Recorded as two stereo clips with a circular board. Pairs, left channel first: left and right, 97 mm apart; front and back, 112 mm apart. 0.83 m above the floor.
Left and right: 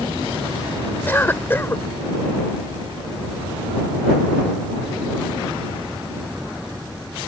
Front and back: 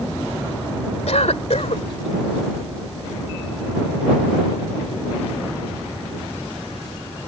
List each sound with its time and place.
1.1 s a cough: 20° left